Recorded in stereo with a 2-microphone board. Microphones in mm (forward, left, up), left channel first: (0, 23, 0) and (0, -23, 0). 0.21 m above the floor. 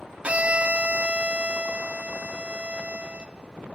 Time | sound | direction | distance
0.2 | a violin | 30° right (ahead or behind) | 0.5 m